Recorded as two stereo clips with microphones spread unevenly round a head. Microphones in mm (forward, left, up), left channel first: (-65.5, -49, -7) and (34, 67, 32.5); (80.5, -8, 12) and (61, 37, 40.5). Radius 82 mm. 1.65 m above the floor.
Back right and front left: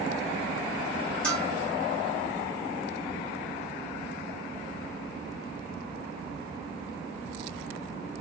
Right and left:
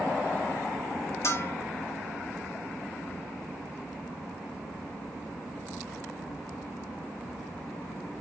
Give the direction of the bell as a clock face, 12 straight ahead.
2 o'clock.